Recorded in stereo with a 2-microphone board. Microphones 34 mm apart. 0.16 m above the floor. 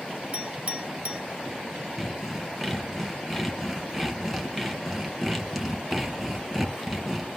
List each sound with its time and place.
0.3 s a clink: 45° right (ahead or behind), 1.2 m
2.0 s sawing: 5° right (ahead or behind), 1.7 m